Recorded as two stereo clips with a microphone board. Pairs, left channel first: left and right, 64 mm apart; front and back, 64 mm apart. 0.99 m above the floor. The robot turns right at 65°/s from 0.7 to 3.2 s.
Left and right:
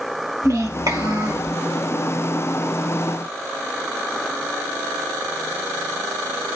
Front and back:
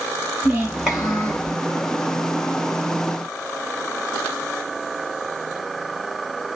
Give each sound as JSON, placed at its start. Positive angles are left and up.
{"t": 0.4, "sound": "a child speaking", "azimuth_deg": -105, "distance_m": 2.5}